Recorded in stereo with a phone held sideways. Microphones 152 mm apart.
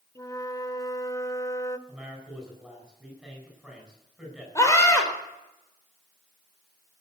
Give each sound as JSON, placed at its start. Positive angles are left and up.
{"t": 0.1, "sound": "a flute", "side_deg": 20, "distance_m": 0.7}
{"t": 1.9, "sound": "a man speaking", "side_deg": -5, "distance_m": 8.0}
{"t": 4.5, "sound": "a scream", "side_deg": 20, "distance_m": 4.0}